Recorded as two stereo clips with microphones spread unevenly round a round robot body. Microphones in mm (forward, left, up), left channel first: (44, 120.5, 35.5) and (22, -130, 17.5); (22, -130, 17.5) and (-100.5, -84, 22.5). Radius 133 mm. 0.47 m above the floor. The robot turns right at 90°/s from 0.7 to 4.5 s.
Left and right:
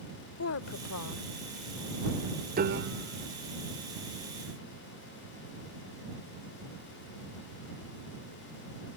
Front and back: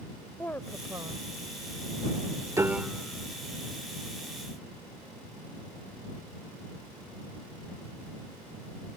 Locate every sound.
0.4 s a woman speaking: 60° left; by 1.2 s 110° left
2.5 s a piano: 140° right; by 3.3 s 70° right